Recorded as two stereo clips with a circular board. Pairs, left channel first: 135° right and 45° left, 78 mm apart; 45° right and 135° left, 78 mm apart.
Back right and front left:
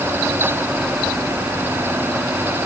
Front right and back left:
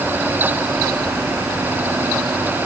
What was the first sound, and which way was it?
Only background noise.